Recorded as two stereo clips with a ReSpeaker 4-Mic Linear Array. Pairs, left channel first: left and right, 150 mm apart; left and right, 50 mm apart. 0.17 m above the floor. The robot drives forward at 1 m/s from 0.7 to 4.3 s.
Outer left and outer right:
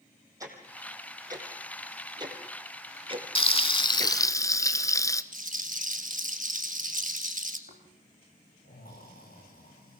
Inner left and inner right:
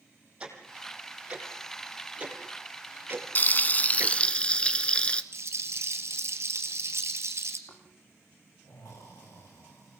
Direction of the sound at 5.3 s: 65° right (ahead or behind).